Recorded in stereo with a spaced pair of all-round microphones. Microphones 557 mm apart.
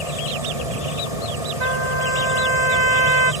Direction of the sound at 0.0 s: 85° left.